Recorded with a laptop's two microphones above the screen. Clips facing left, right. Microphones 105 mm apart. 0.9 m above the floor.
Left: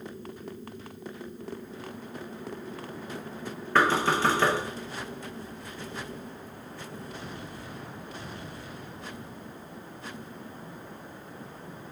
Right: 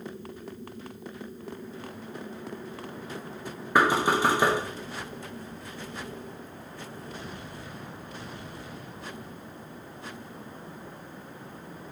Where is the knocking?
10° right (ahead or behind), 0.9 m.